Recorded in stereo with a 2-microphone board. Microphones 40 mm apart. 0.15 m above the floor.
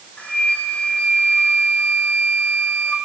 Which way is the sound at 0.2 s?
35° left (ahead or behind).